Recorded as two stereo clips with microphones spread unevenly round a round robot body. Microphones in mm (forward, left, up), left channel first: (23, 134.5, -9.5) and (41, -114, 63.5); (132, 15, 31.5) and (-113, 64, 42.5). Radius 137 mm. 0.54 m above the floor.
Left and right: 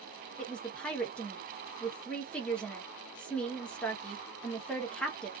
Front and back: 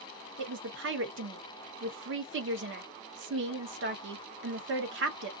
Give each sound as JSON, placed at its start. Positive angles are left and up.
{"t": 0.4, "sound": "a woman speaking", "azimuth_deg": 160, "distance_m": 0.9}